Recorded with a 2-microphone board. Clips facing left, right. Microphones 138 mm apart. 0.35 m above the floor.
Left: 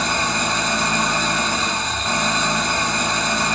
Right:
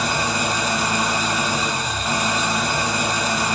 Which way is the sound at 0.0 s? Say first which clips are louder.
Even; 5° right (ahead or behind).